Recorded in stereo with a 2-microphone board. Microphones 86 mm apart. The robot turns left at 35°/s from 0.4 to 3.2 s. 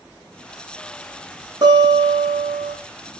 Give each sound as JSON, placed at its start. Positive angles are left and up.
{"t": 1.6, "sound": "a guitar", "azimuth_deg": -55, "distance_m": 4.0}